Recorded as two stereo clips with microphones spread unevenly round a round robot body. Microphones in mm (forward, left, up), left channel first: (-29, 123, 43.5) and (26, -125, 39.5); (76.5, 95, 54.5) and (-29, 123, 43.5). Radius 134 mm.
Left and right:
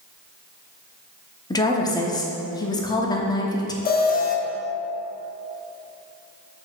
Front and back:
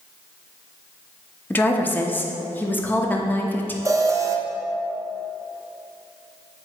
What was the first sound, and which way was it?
A woman speaking, 50° left.